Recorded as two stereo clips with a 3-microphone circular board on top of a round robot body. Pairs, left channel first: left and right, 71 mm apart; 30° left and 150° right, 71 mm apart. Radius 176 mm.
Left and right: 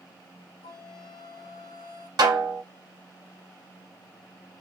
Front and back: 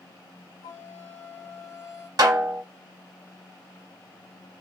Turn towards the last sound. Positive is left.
turn(degrees=-115)